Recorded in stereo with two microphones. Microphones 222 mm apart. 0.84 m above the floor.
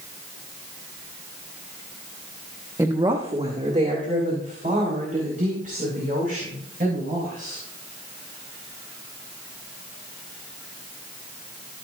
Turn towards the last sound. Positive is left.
turn(degrees=-40)  # may be behind; listen again after turning